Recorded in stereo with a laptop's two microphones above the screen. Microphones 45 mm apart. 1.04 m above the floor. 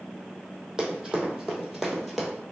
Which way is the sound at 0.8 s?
10° right (ahead or behind).